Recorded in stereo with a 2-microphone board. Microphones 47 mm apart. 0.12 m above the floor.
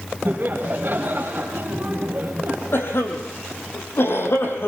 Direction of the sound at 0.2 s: 50° right (ahead or behind).